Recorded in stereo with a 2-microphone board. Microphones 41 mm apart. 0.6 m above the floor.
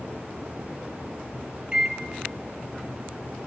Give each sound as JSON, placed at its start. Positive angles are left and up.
{"t": 1.7, "sound": "a microwave", "side_deg": -25, "distance_m": 0.5}